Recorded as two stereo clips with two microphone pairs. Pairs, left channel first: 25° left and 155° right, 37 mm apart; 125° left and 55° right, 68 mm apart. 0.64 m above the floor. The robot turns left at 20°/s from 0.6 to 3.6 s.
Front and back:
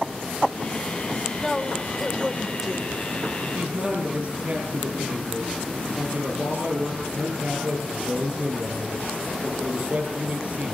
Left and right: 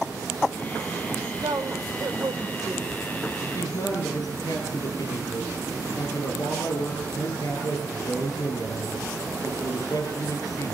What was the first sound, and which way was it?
A woman speaking, 55° right.